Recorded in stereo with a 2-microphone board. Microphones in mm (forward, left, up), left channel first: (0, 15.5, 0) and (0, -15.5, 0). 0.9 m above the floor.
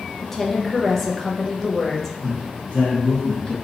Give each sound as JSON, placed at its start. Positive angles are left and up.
{"t": 0.2, "sound": "a woman speaking", "side_deg": 10, "distance_m": 0.7}
{"t": 2.2, "sound": "a man speaking", "side_deg": 40, "distance_m": 1.8}